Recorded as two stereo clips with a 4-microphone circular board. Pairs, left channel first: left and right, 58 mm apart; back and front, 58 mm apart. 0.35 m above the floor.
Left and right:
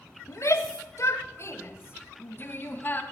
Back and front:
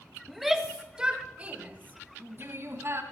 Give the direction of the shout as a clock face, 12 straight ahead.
9 o'clock.